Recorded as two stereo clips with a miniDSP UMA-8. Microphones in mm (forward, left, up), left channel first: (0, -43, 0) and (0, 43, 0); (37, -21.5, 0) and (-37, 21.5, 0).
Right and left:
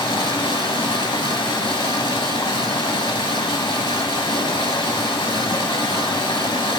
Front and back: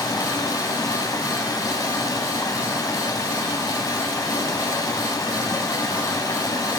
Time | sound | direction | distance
0.0 | running water | 70° right | 0.9 m